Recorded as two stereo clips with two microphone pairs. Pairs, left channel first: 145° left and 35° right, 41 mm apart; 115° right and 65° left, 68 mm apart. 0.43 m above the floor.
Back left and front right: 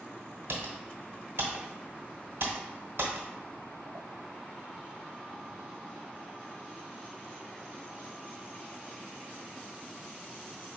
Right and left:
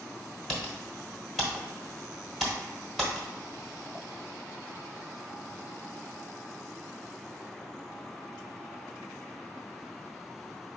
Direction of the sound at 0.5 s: 25° right.